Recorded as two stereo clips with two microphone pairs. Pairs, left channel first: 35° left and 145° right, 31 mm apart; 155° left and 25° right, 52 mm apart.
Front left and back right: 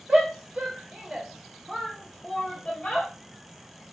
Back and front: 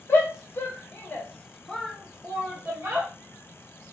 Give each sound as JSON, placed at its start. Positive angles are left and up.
{"t": 0.1, "sound": "a shout", "azimuth_deg": 170, "distance_m": 1.1}